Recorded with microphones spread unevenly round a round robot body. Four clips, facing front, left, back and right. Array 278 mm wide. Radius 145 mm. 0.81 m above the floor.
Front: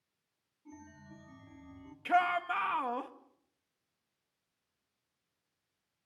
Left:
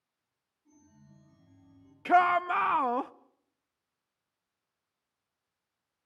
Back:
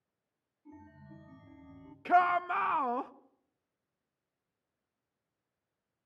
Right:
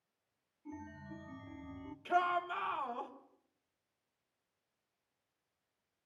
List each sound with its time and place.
0.7 s a chime: 75° right, 2 m
2.0 s a shout: 105° left, 1.0 m